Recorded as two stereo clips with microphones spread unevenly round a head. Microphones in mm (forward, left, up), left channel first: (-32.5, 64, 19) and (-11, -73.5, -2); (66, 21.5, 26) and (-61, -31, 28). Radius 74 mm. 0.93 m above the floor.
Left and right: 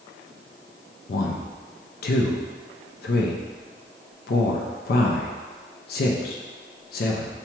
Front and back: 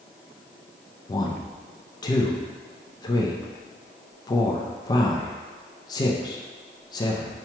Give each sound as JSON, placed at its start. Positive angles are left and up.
{"t": 1.1, "sound": "a man speaking", "azimuth_deg": 80, "distance_m": 0.5}